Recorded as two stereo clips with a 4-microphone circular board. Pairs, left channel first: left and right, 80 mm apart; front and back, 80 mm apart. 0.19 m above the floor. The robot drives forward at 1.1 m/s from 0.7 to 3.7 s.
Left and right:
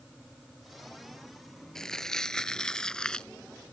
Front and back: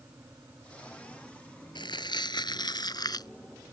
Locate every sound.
1.8 s crumpling: 5° left; by 3.3 s 10° left